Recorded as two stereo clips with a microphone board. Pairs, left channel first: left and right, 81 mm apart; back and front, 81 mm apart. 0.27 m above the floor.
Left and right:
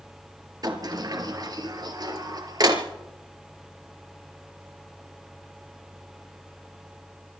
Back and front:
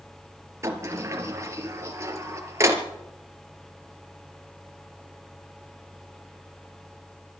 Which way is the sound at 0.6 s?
50° right.